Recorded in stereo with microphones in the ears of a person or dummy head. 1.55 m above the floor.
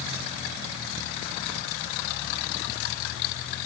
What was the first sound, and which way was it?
Only background noise.